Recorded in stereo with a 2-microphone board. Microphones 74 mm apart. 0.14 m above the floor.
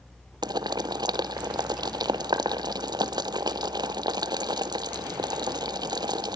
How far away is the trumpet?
No trumpet in this recording.